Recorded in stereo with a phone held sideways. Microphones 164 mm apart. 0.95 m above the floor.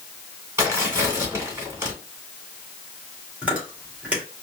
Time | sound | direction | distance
0.6 | tearing paper | 15° right (ahead or behind) | 2.5 m
3.4 | chewing | 10° right (ahead or behind) | 2 m